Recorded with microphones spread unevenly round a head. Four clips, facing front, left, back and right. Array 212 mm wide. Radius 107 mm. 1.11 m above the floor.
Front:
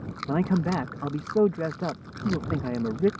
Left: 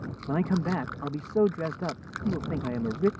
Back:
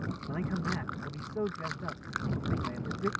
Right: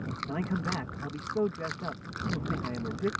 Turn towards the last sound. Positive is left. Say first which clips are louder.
# left 7 dB, front 11 dB
turn(degrees=20)